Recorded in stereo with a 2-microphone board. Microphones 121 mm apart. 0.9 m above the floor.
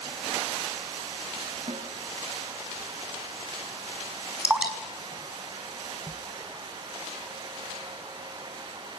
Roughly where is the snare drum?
Right.